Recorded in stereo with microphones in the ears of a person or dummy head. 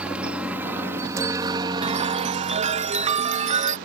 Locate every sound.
0.0 s a helicopter: centre (ahead or behind); by 3.9 s 40° right (ahead or behind)
1.8 s a chime: 40° right (ahead or behind)